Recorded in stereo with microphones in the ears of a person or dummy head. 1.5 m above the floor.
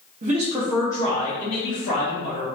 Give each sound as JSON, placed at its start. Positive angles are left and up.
{"t": 0.2, "sound": "a man speaking", "side_deg": -45, "distance_m": 0.8}